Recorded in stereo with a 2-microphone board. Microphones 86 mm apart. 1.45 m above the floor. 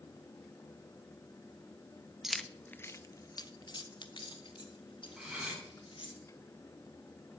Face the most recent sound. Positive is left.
turn(degrees=-10)  # may be behind; listen again after turning